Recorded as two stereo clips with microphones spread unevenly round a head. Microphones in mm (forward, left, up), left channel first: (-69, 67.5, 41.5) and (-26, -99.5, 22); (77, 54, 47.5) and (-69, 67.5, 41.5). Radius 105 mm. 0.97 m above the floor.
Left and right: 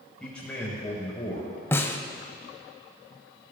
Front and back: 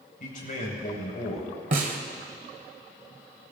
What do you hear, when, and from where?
0.2 s a man speaking: 15° left, 4 m; by 1.5 s 35° left, 4.5 m
1.7 s a snare drum: 170° left, 1.1 m